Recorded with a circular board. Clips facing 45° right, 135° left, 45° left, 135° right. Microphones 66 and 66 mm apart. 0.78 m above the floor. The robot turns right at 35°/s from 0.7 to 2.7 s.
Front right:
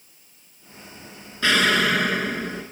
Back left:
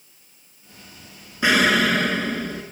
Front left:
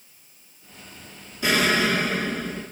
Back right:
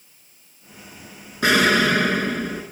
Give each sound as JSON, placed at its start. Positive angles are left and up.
{"t": 1.4, "sound": "an explosion", "azimuth_deg": -150, "distance_m": 1.4}